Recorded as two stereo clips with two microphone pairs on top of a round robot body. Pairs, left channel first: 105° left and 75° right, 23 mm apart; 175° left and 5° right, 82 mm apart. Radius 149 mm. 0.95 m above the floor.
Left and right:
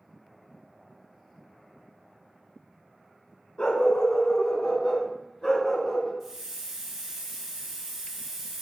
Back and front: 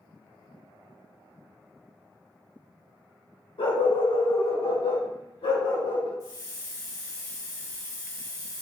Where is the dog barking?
155° left, 1.8 m; by 6.1 s 175° left, 3.5 m.